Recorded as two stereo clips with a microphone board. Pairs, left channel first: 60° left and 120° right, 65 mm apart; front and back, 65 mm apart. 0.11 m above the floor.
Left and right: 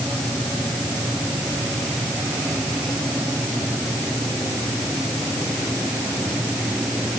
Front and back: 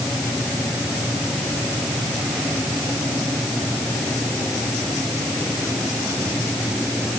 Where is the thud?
I don't hear a thud.